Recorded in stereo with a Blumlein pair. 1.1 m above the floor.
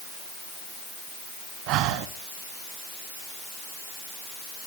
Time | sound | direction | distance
1.7 | breathing | 40° right | 1.4 m